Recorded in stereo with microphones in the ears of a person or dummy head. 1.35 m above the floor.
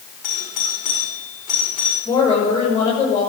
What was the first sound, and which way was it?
A doorbell, 35° left (ahead or behind).